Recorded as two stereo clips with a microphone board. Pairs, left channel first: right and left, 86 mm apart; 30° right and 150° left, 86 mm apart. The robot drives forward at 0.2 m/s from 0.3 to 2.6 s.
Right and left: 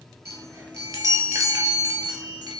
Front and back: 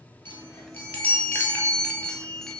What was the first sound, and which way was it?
A chime, 35° left.